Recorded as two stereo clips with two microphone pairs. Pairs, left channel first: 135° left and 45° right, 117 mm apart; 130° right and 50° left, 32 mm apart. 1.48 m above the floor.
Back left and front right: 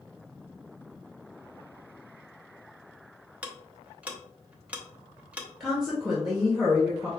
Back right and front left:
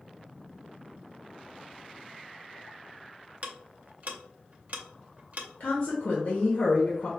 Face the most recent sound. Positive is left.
turn(degrees=-130)